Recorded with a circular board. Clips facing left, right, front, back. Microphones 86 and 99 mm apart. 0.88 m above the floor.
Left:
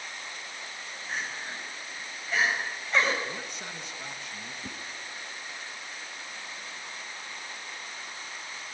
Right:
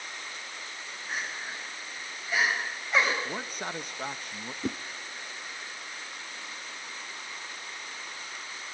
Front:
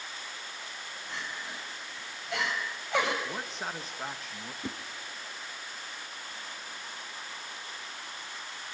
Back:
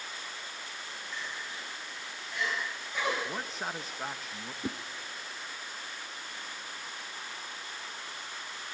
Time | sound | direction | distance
1.1 | crying | 5° right | 6 m
3.2 | a man speaking | 95° right | 1.0 m
4.6 | a whoosh | 100° right | 0.6 m